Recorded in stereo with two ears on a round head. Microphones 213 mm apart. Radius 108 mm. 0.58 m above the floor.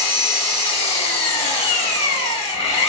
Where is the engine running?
30° left (ahead or behind), 1.0 m.